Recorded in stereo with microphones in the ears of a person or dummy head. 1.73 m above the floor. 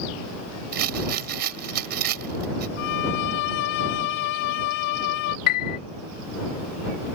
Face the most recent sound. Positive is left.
turn(degrees=55)  # may be behind; listen again after turning